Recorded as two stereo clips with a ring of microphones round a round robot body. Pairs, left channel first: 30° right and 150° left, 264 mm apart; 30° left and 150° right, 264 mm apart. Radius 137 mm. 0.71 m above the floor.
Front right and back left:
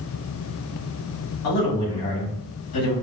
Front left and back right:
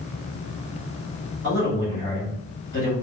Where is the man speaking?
45° right, 2.5 m.